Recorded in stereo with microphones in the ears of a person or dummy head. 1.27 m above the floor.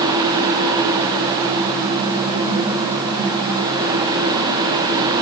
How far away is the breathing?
No breathing in this recording.